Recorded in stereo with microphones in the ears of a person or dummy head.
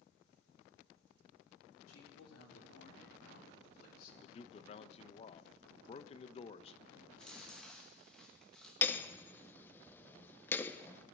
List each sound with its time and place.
1.9 s a man speaking: 85° left, 3.5 m; by 4.1 s 55° left (ahead or behind), 3 m
4.2 s a man speaking: 35° left (ahead or behind), 0.6 m
7.1 s chewing: centre (ahead or behind), 1.7 m
8.8 s hammering: 10° left (ahead or behind), 0.6 m